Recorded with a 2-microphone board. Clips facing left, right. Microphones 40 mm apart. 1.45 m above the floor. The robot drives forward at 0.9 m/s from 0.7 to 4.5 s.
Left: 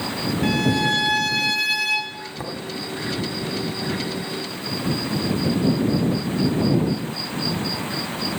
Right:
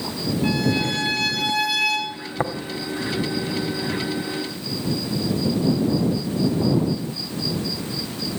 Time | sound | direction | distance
0.4 | a violin | 80° left | 3.5 m
2.4 | tapping | 40° right (ahead or behind) | 1.5 m